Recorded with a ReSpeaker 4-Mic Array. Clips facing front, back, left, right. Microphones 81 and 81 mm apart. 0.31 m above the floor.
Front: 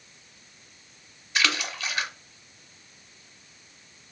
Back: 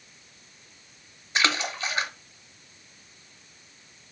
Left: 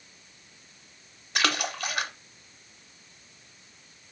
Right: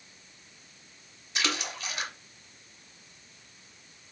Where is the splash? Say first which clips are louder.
Back 2 dB, left 5 dB; 120° left, 0.6 m.